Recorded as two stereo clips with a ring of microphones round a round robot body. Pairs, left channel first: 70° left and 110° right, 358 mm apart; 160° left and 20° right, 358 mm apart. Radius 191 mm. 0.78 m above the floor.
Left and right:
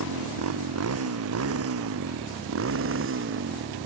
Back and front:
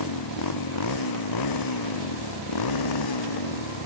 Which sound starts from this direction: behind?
A motorcycle, at 0.0 s.